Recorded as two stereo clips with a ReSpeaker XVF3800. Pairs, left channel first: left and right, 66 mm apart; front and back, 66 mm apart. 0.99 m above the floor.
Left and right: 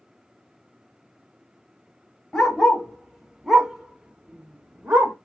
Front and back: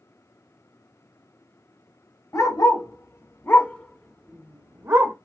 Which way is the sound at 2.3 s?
5° left.